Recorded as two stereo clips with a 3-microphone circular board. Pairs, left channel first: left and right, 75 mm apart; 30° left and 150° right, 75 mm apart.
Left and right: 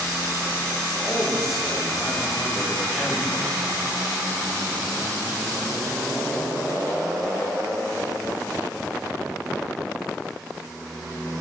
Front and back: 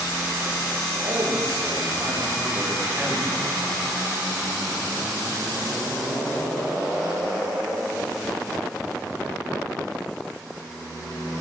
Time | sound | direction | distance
1.0 | a man speaking | straight behind | 9 m